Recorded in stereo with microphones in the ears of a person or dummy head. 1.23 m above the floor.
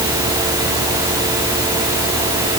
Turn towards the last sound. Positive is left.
No sound to turn to.